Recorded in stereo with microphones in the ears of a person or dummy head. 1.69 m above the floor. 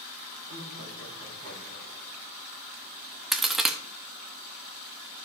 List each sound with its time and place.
0.5 s laughter: 55° right (ahead or behind), 4 m
3.3 s a crack: 5° left (ahead or behind), 0.7 m